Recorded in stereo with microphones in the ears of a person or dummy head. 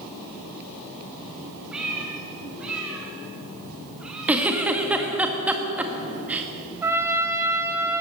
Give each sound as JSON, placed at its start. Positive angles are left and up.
{"t": 1.7, "sound": "a cat meowing", "side_deg": -10, "distance_m": 5.0}
{"t": 4.3, "sound": "a giggle", "side_deg": -15, "distance_m": 1.7}
{"t": 6.8, "sound": "a trumpet", "side_deg": -20, "distance_m": 2.5}